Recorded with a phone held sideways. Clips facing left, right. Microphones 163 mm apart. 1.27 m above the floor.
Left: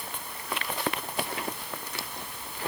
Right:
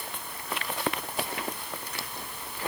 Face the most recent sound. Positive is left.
No sound to turn to.